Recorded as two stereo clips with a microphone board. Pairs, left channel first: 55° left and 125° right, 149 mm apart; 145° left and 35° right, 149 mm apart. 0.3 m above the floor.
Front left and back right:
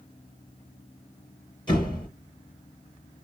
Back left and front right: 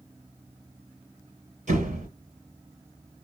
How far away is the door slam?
About 2 m.